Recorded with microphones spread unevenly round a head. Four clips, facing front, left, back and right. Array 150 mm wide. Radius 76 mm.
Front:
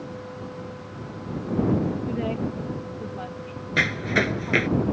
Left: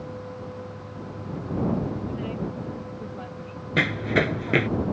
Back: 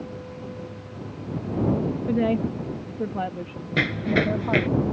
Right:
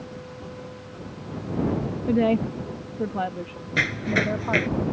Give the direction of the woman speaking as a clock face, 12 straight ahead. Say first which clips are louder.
Right 10 dB, back 5 dB; 4 o'clock.